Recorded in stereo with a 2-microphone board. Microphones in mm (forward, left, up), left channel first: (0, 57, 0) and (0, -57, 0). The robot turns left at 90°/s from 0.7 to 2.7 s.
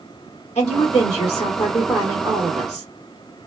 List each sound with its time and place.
0.6 s a woman speaking: 110° left, 1.5 m; by 2.9 s 70° right, 1.5 m